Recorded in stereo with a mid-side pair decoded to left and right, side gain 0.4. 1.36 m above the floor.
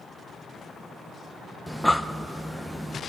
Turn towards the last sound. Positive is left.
turn(degrees=5)